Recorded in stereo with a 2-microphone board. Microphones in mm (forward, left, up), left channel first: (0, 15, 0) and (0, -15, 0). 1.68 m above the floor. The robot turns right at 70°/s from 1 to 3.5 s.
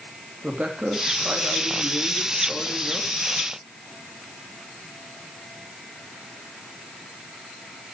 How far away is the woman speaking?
About 3.5 m.